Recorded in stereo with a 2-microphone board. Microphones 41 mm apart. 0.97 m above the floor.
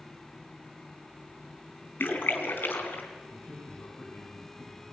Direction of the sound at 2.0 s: 65° left (ahead or behind).